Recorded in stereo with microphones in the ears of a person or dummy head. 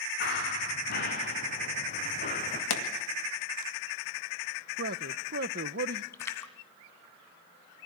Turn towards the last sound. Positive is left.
turn(degrees=15)  # may be behind; listen again after turning